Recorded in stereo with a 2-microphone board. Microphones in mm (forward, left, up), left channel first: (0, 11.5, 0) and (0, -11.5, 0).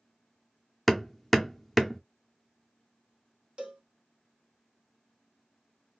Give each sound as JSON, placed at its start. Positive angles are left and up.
{"t": 0.9, "sound": "hammering", "side_deg": 0, "distance_m": 0.6}
{"t": 3.6, "sound": "a cowbell", "side_deg": -45, "distance_m": 1.5}